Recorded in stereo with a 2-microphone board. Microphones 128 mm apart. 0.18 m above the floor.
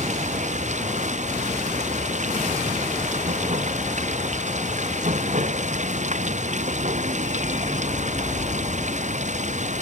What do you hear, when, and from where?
0.0 s running water: 70° right (ahead or behind)